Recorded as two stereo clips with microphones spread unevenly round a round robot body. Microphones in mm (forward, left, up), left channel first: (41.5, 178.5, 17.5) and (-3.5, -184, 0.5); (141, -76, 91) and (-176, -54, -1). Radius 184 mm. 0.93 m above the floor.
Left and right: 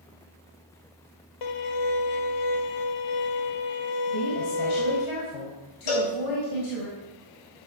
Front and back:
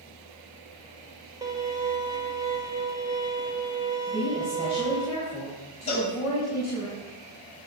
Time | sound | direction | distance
1.4 | a violin | 105° left | 1.1 m
4.1 | a woman speaking | 95° left | 5.5 m
5.9 | a cowbell | 70° left | 3.5 m